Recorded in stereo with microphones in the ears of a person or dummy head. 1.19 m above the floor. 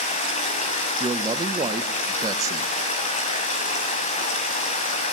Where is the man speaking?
20° right (ahead or behind), 1.1 m.